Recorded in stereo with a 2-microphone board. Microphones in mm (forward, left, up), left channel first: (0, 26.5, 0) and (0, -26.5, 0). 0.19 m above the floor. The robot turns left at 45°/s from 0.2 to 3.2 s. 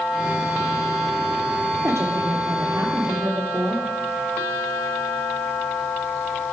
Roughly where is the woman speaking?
Ahead right.